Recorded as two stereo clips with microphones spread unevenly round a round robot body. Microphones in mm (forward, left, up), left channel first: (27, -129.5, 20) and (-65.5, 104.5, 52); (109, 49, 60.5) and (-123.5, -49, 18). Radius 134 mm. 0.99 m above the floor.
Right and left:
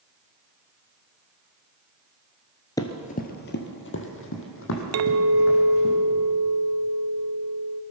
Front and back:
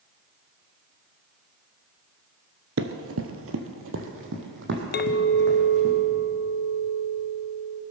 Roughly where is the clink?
Left.